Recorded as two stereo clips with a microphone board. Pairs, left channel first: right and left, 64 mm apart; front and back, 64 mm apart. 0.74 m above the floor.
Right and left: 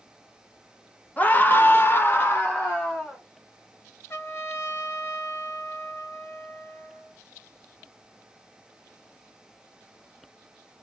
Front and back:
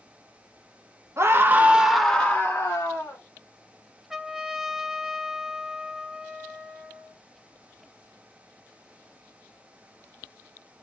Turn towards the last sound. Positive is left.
turn(degrees=-95)